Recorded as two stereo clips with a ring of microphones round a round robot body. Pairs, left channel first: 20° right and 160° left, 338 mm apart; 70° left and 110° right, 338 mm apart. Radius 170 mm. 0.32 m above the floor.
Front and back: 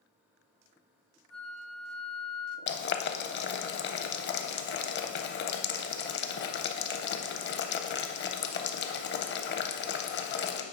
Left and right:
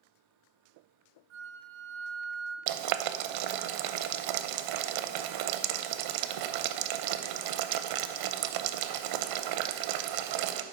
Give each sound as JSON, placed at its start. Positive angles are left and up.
{"t": 1.3, "sound": "a flute", "azimuth_deg": -110, "distance_m": 0.8}
{"t": 2.7, "sound": "boiling", "azimuth_deg": -85, "distance_m": 0.5}